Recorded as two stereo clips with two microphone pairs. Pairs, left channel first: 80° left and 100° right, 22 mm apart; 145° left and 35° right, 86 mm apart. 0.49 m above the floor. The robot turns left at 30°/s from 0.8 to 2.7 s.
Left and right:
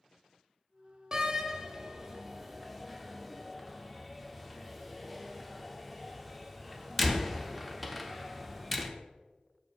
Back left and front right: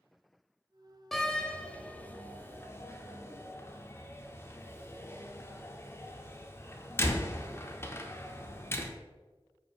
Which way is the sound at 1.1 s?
140° right.